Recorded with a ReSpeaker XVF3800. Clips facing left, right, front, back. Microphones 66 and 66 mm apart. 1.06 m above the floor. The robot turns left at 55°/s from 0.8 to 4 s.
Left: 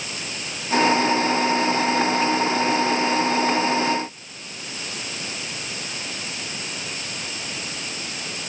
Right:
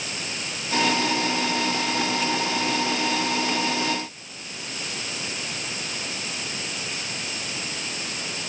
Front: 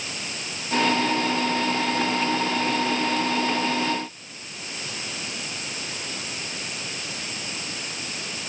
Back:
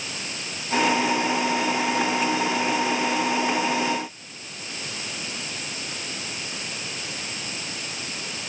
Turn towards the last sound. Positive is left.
No sound to turn to.